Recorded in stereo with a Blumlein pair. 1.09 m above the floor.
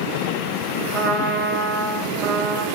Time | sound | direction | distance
0.9 | a trumpet | 25° right | 1.8 m